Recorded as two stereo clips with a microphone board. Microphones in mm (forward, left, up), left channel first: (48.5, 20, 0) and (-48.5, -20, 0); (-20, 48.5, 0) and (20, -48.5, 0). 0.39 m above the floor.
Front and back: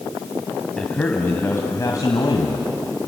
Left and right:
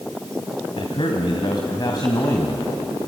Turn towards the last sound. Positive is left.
turn(degrees=50)